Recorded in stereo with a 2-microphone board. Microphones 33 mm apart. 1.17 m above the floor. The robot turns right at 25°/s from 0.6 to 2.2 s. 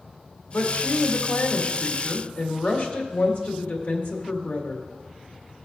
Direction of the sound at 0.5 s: 75° left.